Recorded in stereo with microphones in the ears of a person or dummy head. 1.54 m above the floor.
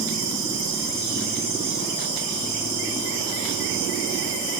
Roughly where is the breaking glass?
I don't hear breaking glass.